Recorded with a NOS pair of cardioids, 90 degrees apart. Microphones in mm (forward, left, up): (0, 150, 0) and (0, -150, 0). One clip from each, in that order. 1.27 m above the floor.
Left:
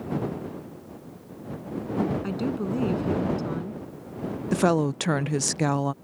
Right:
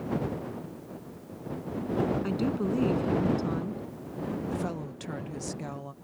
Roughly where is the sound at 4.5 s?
Ahead left.